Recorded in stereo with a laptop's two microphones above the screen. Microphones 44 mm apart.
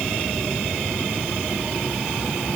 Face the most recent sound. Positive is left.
No sound to turn to.